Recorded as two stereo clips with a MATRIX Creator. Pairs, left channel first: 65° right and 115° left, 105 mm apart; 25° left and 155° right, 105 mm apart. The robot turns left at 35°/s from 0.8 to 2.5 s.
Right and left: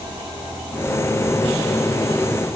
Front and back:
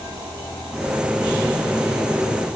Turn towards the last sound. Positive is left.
No sound to turn to.